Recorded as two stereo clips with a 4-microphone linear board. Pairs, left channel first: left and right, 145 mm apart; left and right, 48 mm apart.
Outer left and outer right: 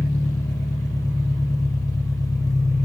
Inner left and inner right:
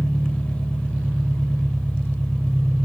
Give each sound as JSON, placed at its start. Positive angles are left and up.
{"t": 0.0, "sound": "an engine running", "side_deg": 25, "distance_m": 0.7}